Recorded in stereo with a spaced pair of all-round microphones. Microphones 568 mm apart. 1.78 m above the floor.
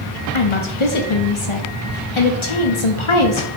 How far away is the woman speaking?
About 0.8 m.